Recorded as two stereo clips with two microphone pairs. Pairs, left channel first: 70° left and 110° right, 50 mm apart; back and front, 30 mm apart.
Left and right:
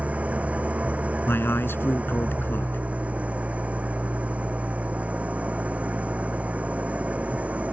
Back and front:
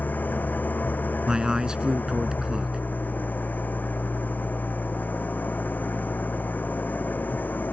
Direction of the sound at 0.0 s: 175° right.